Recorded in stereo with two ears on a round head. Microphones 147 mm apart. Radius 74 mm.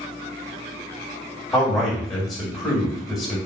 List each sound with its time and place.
1.5 s a man speaking: 5° left (ahead or behind), 1.7 m